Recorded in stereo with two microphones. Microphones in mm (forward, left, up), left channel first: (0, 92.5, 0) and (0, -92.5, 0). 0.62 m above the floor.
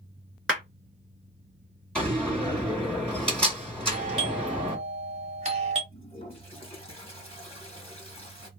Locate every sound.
0.5 s a clap: 5° right (ahead or behind), 2.0 m
1.9 s a door slam: 5° left (ahead or behind), 2.5 m
3.9 s a doorbell: 35° right (ahead or behind), 1.2 m
5.9 s a toilet flushing: 35° left (ahead or behind), 2.5 m